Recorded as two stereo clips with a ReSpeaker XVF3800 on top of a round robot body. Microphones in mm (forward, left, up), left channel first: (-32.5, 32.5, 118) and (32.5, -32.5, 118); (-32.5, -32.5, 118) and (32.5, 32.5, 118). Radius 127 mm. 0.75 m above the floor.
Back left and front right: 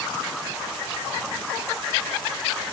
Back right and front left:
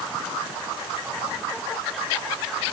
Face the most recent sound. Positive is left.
No sound to turn to.